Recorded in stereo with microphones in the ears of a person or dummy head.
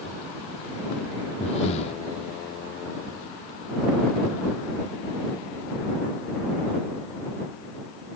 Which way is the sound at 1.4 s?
35° left (ahead or behind).